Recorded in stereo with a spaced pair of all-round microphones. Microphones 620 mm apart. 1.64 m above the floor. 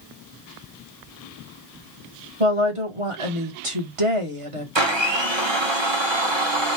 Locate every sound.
2.4 s a woman speaking: 55° right (ahead or behind), 1.4 m
4.8 s a blender: 45° right (ahead or behind), 1.1 m